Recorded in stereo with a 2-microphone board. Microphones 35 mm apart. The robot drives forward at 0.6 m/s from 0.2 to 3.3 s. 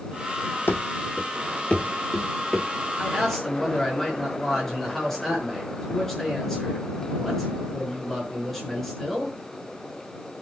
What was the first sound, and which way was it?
Running footsteps, 75° left (ahead or behind).